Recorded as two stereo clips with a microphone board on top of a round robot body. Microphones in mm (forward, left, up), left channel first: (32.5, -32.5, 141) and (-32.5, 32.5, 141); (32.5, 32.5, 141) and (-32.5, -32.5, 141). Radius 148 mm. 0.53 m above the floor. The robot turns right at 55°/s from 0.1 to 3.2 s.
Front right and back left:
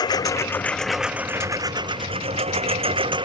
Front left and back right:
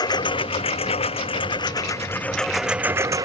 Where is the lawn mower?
Straight ahead; by 3.3 s 170° left.